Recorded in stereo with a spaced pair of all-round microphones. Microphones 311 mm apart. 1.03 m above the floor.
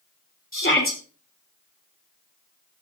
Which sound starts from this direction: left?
A shout, at 0.5 s.